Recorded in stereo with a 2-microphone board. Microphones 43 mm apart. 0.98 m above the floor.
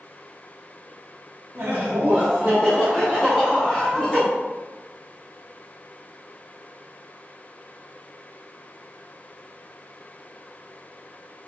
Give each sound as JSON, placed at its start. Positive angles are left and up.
{"t": 1.6, "sound": "laughter", "side_deg": -60, "distance_m": 1.2}